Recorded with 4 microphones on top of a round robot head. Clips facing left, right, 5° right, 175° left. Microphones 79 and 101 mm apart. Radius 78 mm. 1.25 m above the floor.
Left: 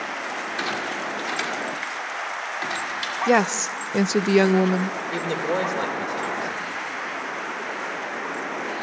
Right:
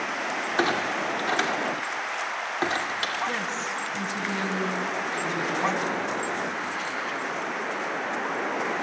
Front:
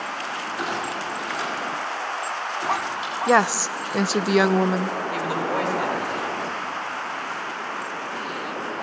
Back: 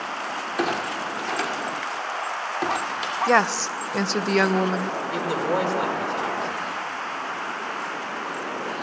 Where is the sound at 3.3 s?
80° left, 0.6 m.